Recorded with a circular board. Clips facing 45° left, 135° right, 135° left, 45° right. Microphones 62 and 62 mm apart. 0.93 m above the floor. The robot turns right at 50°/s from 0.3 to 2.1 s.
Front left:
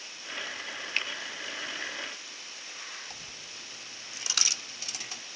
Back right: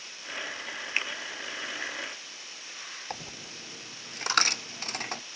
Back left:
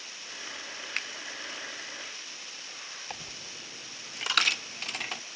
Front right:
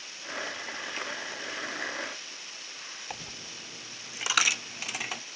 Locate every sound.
1.0 s a finger snap: 155° left, 0.5 m; by 1.1 s 160° left, 0.5 m
3.1 s a dropped coin: 130° right, 0.6 m